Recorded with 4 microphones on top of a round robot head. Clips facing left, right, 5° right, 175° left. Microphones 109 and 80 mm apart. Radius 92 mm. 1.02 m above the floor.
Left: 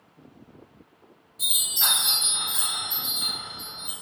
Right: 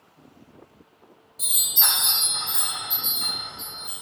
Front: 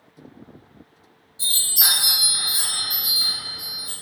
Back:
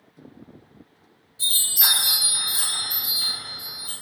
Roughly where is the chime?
Ahead right.